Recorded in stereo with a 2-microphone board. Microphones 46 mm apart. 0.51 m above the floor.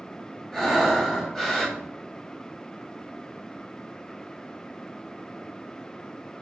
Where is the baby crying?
No baby crying in this recording.